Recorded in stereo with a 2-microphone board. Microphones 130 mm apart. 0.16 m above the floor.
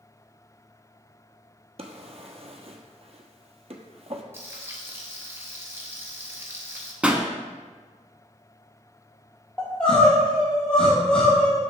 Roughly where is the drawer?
Right.